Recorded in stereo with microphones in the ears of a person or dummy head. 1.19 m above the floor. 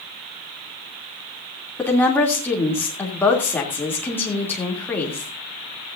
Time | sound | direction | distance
1.8 | a woman speaking | 15° left (ahead or behind) | 3 m